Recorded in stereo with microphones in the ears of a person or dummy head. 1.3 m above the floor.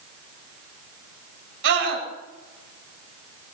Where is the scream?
65° right (ahead or behind), 5.5 m.